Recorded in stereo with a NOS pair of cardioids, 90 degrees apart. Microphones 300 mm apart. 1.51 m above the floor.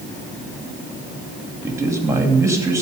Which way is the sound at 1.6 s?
10° right.